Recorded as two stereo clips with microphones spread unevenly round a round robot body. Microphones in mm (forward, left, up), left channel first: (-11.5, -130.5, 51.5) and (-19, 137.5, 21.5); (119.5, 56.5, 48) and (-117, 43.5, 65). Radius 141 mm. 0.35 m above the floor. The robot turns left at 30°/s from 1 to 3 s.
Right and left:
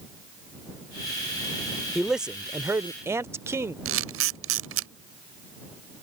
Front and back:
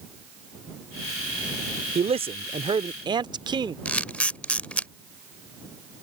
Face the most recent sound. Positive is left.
turn(degrees=85)